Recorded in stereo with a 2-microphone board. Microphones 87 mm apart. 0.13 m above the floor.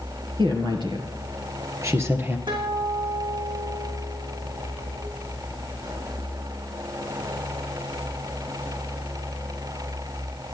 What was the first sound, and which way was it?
A woman speaking, 60° right (ahead or behind).